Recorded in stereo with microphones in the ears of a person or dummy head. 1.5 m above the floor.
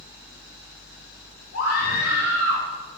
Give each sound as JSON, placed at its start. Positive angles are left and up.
{"t": 1.5, "sound": "a scream", "side_deg": 80, "distance_m": 5.0}